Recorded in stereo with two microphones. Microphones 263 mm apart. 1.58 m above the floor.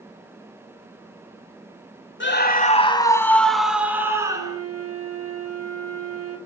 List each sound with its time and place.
2.2 s a scream: 45° left (ahead or behind), 1.1 m; by 4.6 s 15° right (ahead or behind), 2.5 m
4.3 s a flute: 70° right (ahead or behind), 4 m